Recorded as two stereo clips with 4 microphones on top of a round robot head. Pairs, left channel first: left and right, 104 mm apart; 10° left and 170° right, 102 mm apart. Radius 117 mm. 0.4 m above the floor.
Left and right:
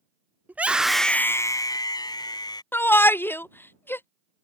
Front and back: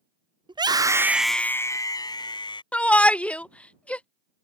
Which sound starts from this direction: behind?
A scream, at 0.5 s.